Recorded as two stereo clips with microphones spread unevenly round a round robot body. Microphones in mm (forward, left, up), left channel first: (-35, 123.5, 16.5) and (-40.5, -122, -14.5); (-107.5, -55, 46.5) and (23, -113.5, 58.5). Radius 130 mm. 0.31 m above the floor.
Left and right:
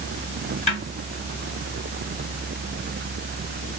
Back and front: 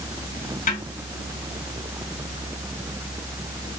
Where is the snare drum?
155° left, 3.5 m.